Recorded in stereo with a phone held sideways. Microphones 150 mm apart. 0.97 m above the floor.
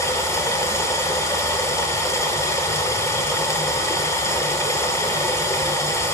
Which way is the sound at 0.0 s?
20° left (ahead or behind).